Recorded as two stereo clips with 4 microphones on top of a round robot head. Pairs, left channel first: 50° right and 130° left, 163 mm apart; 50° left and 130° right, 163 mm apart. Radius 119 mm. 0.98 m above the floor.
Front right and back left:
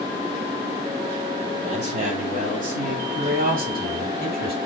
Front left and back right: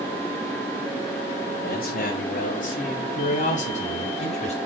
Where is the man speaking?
85° left, 7.5 m; by 4.5 s 100° left, 7.5 m.